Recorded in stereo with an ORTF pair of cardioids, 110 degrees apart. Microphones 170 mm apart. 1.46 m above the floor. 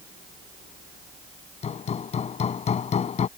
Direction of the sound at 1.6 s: 45° left.